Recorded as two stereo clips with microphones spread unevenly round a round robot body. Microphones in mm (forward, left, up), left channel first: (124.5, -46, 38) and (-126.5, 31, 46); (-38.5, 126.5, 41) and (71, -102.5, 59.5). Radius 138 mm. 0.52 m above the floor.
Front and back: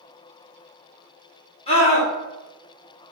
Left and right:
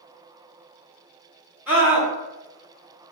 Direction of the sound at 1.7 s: 20° left.